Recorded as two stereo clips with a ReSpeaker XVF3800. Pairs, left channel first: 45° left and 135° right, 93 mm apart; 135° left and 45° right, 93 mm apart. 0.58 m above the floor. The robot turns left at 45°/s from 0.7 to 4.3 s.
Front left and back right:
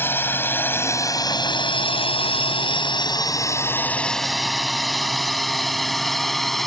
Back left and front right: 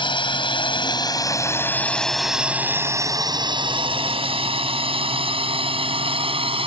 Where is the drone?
110° left; by 6.7 s 45° right.